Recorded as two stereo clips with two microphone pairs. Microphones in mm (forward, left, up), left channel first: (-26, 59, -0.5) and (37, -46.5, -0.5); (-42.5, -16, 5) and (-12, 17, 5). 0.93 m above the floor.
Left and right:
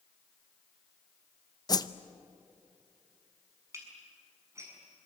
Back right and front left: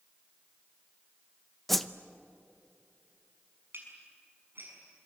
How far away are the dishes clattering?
About 6 m.